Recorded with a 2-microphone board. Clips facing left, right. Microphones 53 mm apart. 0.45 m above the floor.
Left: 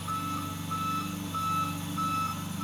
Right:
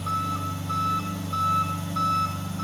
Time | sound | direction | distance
0.0 | an engine running | 85° right | 8.5 m